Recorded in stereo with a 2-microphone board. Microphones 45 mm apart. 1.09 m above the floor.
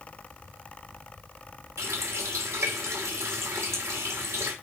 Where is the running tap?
90° right, 2.5 m.